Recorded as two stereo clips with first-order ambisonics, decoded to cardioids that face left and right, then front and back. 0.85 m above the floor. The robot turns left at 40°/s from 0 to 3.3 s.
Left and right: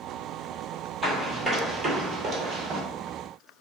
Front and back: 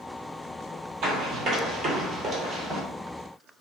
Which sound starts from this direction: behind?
Running footsteps, at 1.0 s.